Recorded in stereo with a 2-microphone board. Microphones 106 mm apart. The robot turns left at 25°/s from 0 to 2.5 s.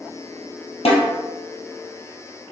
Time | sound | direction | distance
0.8 | a snare drum | 70° left (ahead or behind) | 1.6 m